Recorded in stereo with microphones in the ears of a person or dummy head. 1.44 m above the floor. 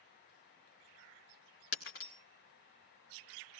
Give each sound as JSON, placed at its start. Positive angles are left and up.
{"t": 1.7, "sound": "breaking glass", "side_deg": 55, "distance_m": 1.4}